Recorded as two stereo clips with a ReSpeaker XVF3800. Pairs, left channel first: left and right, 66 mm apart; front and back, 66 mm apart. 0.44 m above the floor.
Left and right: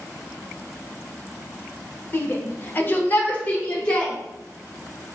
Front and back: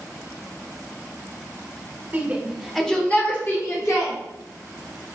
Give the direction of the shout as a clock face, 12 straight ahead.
8 o'clock.